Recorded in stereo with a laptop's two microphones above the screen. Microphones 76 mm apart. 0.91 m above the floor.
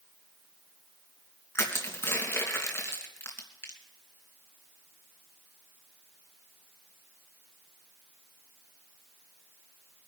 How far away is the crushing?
About 3 m.